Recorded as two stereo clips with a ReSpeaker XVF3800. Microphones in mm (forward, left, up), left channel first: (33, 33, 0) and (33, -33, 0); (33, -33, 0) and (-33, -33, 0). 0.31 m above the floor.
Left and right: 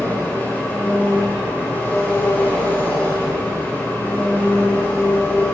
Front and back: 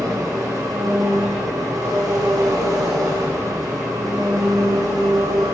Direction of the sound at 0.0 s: 150° left.